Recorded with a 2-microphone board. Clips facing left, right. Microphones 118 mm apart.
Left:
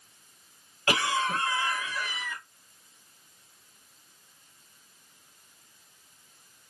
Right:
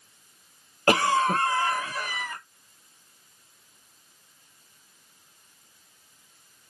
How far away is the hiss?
I don't hear a hiss.